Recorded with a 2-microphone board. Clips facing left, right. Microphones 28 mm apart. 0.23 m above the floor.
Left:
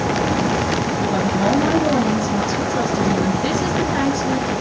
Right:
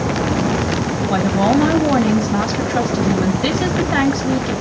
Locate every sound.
1.1 s a woman speaking: 45° right (ahead or behind), 2 m